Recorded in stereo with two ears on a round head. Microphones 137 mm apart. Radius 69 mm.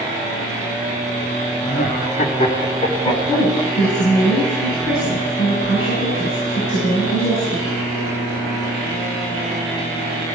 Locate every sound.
1.6 s laughter: 60° left (ahead or behind), 1.3 m; by 4.0 s 30° left (ahead or behind), 4 m
3.0 s a woman speaking: 85° left, 7 m